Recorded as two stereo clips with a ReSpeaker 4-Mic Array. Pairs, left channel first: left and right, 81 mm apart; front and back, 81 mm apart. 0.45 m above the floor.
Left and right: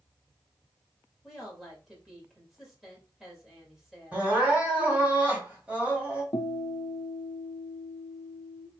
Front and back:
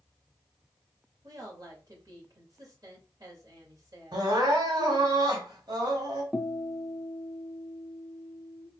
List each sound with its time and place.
1.2 s a woman speaking: 175° right, 2 m
4.1 s crying: 160° right, 2 m
6.3 s a guitar: 80° left, 0.6 m